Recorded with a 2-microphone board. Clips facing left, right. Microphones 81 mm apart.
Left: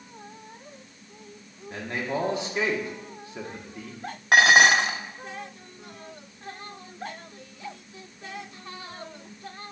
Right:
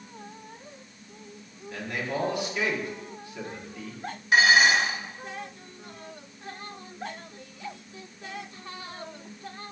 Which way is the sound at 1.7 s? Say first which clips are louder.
Left 2 dB; 30° left (ahead or behind).